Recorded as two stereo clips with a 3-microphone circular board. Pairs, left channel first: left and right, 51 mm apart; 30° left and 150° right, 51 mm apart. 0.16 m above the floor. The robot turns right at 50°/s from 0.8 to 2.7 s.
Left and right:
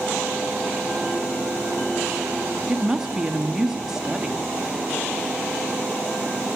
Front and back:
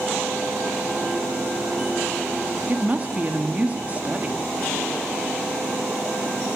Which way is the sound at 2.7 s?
160° right.